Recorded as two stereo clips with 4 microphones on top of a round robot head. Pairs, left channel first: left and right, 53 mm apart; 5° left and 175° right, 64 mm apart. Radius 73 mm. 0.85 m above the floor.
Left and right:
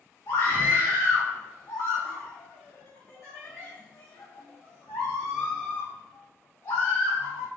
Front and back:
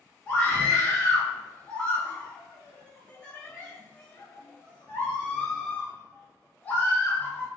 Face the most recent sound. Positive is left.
turn(degrees=75)